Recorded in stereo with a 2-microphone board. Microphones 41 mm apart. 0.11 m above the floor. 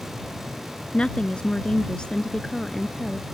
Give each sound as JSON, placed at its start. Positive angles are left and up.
{"t": 0.9, "sound": "a woman speaking", "side_deg": 25}